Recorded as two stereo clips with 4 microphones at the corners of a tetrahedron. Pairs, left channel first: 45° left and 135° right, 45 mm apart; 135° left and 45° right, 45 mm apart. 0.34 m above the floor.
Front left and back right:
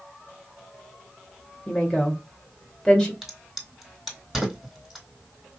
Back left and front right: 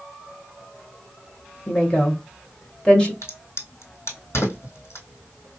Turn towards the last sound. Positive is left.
turn(degrees=140)